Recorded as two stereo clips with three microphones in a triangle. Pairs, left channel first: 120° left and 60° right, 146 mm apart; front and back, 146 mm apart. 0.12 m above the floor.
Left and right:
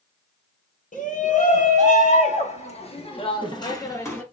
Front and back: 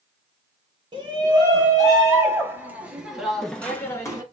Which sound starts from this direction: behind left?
A shout, at 0.9 s.